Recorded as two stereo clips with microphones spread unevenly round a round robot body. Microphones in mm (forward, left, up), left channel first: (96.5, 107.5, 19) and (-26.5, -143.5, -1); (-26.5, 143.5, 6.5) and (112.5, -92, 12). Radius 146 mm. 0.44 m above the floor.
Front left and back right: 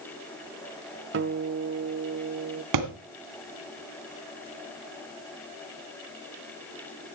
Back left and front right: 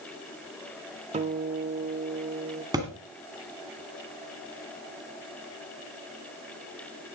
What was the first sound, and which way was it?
A guitar, 120° right.